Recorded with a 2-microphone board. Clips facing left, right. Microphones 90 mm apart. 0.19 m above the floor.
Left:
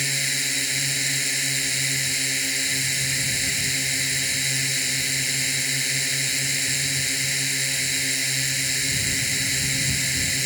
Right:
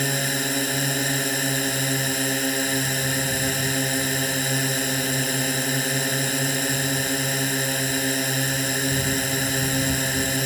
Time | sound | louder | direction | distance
0.0 | a drone | right 6 dB | 45° right (ahead or behind) | ?